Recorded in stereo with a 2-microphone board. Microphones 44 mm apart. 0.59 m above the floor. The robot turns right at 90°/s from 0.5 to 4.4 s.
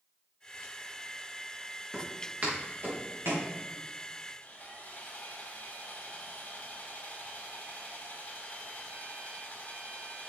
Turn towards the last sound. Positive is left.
turn(degrees=55)  # may be behind; listen again after turning